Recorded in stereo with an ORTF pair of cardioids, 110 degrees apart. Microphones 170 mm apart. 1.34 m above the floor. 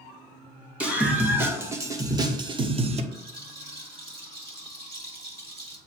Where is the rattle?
35° right, 2.5 m.